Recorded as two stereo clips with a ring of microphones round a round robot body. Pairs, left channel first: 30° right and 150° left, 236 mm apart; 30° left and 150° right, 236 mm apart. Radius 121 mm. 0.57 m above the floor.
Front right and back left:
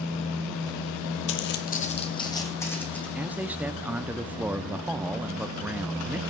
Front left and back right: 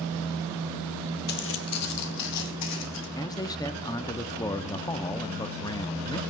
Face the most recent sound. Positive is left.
turn(degrees=75)